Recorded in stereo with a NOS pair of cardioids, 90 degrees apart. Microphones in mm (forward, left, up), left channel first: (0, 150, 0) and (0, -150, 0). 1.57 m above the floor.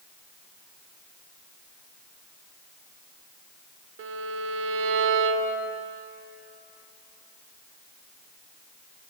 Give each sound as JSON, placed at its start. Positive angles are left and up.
{"t": 4.0, "sound": "a violin", "azimuth_deg": -45, "distance_m": 0.5}